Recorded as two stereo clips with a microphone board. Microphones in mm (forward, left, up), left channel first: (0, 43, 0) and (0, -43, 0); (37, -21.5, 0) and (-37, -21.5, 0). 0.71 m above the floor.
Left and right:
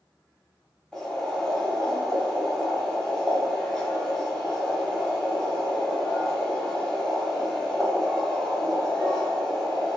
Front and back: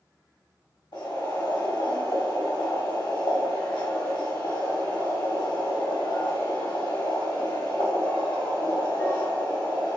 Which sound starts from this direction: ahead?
Boiling, at 0.9 s.